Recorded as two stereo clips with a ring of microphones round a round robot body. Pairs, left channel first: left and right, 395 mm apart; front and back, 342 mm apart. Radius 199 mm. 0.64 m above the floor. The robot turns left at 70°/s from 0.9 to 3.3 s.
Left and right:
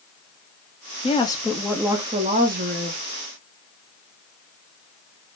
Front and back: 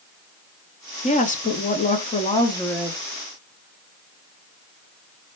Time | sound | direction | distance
1.0 | a woman speaking | 40° left | 0.9 m